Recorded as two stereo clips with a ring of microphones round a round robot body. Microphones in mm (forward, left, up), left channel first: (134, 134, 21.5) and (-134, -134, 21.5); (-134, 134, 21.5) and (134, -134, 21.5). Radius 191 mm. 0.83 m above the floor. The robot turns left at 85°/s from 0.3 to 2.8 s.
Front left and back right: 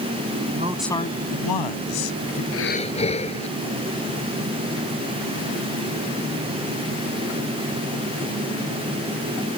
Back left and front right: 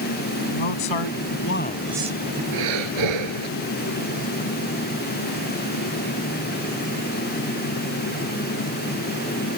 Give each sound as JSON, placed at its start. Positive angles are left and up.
{"t": 0.5, "sound": "a man speaking", "azimuth_deg": 160}
{"t": 2.5, "sound": "breathing", "azimuth_deg": -5}